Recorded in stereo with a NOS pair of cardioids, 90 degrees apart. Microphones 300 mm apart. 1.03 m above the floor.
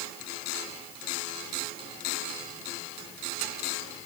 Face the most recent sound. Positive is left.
No sound to turn to.